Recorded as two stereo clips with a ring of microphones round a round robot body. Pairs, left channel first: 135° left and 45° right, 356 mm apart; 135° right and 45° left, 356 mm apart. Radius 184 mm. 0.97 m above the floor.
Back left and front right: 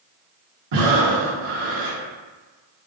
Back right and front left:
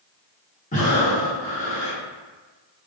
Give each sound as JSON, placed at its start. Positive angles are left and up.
{"t": 0.7, "sound": "breathing", "azimuth_deg": -65, "distance_m": 2.0}